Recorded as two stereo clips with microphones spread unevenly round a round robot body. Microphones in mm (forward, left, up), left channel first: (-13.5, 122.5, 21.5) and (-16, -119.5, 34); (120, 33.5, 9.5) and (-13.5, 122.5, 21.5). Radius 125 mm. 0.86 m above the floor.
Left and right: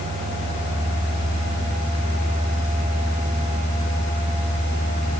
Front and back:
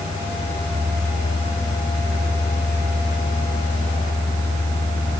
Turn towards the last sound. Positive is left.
No sound to turn to.